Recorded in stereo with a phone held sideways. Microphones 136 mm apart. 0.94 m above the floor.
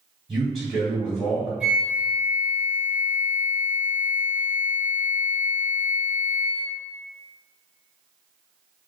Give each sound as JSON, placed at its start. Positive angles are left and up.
{"t": 0.3, "sound": "a man speaking", "side_deg": 0, "distance_m": 1.9}
{"t": 1.6, "sound": "a flute", "side_deg": -5, "distance_m": 1.9}